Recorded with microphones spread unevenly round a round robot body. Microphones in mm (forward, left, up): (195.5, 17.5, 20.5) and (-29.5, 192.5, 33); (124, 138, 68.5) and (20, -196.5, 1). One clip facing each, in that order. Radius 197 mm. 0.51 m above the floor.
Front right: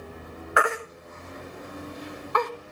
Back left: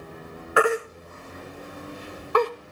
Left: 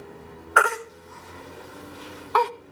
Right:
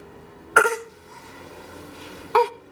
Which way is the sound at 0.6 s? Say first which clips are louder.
Back left 7 dB, right 5 dB; 155° right.